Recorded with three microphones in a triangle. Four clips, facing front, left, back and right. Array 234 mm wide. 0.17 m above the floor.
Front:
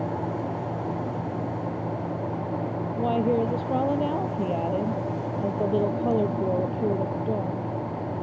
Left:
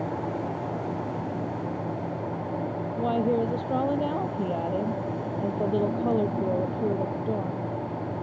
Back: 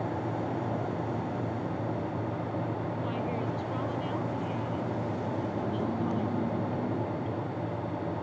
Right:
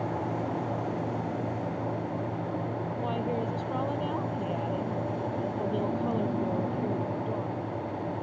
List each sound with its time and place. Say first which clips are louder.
3.0 s a woman speaking: left 8 dB, front 9 dB; 35° left